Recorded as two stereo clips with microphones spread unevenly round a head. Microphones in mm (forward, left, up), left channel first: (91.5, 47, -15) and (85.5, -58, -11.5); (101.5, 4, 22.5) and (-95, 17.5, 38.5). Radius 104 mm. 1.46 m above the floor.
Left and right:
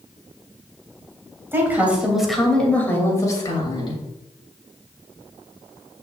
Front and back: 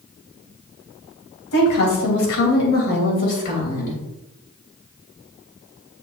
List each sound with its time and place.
1.5 s a woman speaking: 25° right, 3 m; by 4.0 s 50° left, 3 m